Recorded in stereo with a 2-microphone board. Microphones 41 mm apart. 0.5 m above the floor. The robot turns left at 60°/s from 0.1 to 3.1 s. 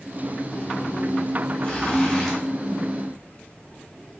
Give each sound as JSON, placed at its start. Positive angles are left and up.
{"t": 1.6, "sound": "a zipper", "azimuth_deg": 55, "distance_m": 1.4}